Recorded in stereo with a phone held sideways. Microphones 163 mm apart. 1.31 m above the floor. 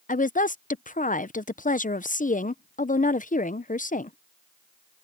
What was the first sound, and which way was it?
A woman speaking, 55° left (ahead or behind).